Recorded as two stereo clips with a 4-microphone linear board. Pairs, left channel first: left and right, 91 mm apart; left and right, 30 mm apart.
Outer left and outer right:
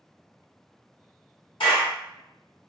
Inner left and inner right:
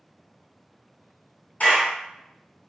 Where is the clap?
75° left (ahead or behind), 1.4 m.